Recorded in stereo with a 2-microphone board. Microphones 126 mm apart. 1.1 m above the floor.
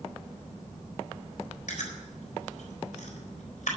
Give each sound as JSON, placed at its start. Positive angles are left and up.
{"t": 1.7, "sound": "chewing", "side_deg": 90, "distance_m": 4.0}